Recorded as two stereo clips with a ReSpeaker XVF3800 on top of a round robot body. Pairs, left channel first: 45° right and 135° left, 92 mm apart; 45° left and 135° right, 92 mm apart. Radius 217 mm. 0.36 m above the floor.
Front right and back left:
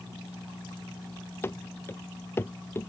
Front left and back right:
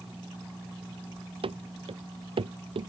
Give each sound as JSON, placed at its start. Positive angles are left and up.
{"t": 1.4, "sound": "running footsteps", "azimuth_deg": -110}